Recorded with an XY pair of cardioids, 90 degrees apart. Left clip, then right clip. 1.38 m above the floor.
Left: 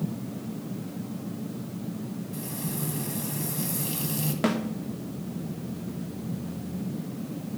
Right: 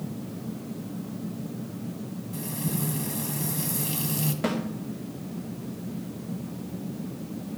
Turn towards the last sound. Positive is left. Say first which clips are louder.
# left 2 dB
turn(degrees=40)